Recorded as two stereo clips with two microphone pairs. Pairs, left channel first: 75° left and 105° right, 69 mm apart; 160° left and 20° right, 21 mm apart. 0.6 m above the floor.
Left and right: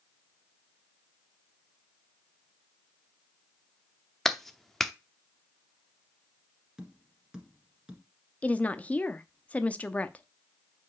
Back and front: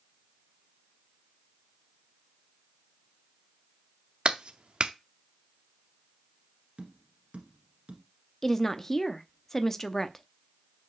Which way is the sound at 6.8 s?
25° right.